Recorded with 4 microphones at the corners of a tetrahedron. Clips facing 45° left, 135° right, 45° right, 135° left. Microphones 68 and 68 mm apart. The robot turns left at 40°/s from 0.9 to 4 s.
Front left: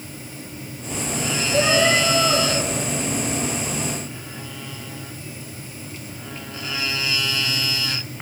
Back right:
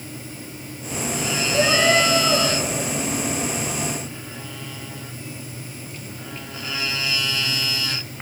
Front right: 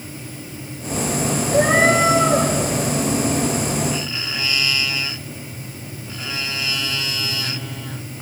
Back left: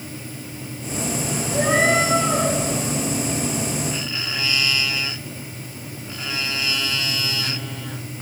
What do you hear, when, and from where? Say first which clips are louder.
1.5 s a cat meowing: even, front right 3 dB; 5° left, 4.5 m; by 2.5 s 30° right, 4.5 m